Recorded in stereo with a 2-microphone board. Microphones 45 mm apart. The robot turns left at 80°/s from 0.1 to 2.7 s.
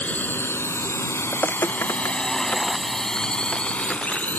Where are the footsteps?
25° left (ahead or behind); by 4.3 s 10° left (ahead or behind).